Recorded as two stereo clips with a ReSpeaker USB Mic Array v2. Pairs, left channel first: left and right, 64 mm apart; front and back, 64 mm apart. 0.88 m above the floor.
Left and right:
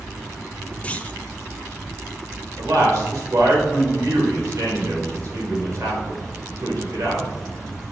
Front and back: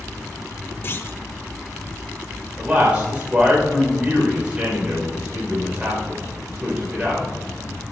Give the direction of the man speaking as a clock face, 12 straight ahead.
4 o'clock.